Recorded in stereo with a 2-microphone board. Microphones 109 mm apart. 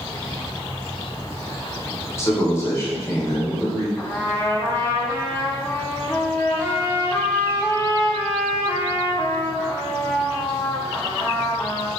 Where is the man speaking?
25° left (ahead or behind), 0.9 m.